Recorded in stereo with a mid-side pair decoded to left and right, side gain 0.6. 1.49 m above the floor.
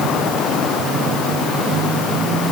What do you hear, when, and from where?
Only background noise.